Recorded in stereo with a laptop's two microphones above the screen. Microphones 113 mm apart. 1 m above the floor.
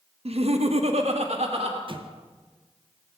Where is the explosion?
50° right (ahead or behind), 0.8 m.